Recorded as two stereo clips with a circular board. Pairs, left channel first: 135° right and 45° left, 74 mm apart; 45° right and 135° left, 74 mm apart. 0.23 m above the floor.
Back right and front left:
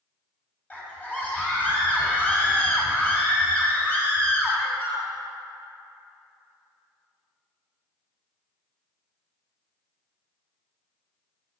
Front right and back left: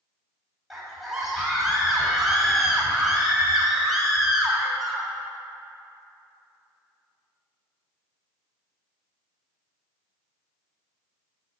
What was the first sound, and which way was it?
A scream, 145° right.